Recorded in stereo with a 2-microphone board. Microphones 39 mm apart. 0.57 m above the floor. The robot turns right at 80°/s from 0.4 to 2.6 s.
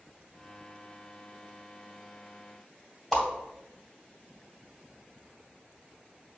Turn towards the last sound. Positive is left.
turn(degrees=10)  # may be behind; listen again after turning